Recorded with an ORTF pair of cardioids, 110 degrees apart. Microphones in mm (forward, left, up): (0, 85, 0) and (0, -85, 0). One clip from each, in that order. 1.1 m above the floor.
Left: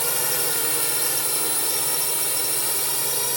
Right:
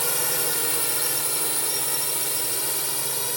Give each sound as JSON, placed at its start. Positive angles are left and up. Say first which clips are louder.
{"t": 0.0, "sound": "a drone", "louder": "left 1 dB", "azimuth_deg": 15}